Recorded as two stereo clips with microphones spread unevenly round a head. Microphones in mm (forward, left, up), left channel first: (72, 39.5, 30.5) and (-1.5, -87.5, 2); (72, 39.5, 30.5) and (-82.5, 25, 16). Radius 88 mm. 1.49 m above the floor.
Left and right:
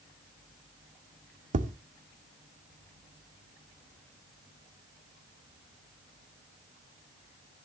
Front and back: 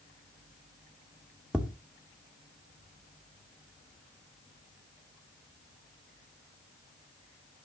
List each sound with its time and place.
1.5 s tapping: 85° right, 0.9 m